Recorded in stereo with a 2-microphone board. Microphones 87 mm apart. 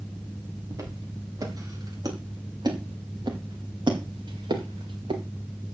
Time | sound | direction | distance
0.7 | footsteps | 40° right (ahead or behind) | 6 m